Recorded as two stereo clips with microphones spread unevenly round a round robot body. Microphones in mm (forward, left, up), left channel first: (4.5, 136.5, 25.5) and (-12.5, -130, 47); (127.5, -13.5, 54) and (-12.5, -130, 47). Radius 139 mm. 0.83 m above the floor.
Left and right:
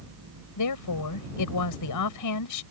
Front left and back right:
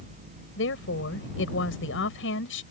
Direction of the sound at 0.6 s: 70° left.